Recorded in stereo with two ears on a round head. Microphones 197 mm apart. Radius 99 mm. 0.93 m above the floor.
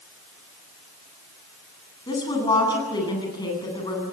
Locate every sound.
2.1 s a woman speaking: 20° left (ahead or behind), 9 m